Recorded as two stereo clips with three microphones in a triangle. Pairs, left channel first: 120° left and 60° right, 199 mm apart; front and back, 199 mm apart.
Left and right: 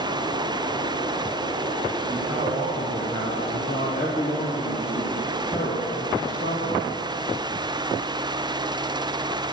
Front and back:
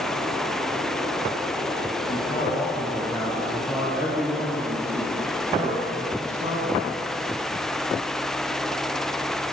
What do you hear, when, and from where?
2.1 s a man speaking: 10° left, 1.9 m; by 7.0 s 140° left, 4 m